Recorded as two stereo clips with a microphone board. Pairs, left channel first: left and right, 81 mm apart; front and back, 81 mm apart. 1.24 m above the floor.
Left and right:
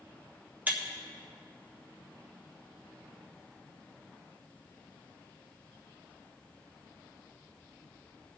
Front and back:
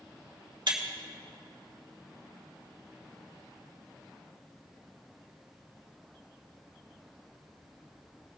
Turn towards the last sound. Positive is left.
turn(degrees=-160)